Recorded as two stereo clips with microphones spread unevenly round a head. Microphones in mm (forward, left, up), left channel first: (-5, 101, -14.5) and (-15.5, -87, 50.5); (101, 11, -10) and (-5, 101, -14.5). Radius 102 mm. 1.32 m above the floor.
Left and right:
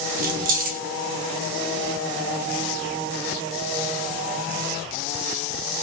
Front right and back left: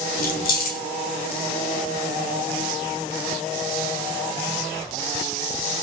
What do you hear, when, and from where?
0.2 s keys jangling: 55° right, 0.9 m